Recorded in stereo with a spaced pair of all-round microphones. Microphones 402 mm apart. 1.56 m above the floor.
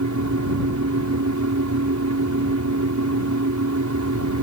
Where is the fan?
45° right (ahead or behind).